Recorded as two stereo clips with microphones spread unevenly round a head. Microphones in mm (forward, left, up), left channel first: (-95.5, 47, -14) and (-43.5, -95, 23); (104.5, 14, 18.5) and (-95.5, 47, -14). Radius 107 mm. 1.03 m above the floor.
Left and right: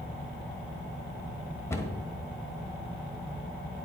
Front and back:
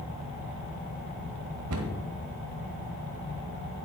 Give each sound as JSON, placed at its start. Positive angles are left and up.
{"t": 1.7, "sound": "a cupboard door", "azimuth_deg": -170, "distance_m": 1.4}